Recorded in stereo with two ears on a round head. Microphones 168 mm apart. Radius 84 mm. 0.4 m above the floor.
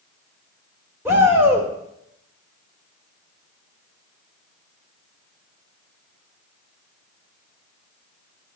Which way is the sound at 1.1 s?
15° right (ahead or behind).